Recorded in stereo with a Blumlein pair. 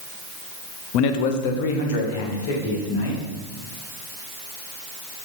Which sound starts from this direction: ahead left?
A man speaking, at 0.9 s.